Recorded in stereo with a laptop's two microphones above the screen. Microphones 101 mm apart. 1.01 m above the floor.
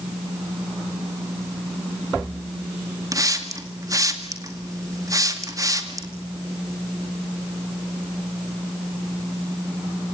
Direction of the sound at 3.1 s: 35° right (ahead or behind).